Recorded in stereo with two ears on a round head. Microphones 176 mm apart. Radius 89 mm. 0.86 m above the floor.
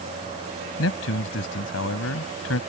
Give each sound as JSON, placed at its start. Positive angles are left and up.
{"t": 0.8, "sound": "a man speaking", "side_deg": 75}